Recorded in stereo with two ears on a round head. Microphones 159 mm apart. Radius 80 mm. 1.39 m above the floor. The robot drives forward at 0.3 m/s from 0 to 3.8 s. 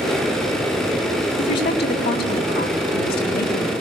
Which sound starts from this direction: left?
A woman speaking, at 1.4 s.